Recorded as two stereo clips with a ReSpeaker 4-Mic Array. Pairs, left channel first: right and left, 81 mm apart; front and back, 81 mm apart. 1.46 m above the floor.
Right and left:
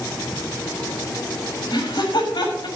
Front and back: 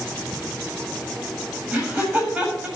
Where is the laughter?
105° right, 7.5 m.